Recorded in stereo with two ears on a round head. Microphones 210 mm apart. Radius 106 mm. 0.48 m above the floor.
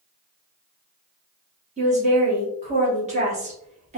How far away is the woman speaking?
About 1.1 m.